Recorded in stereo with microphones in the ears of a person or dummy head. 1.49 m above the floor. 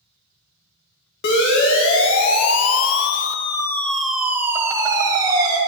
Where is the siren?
60° left (ahead or behind), 2 m; by 5.6 s 25° right (ahead or behind), 2.5 m.